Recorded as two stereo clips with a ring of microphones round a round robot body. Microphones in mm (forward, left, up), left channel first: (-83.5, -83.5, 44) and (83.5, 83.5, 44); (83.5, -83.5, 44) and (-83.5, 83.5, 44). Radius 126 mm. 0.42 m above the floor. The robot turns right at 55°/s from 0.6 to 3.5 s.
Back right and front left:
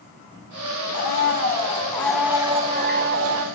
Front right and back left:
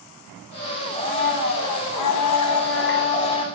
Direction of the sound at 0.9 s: 110° right.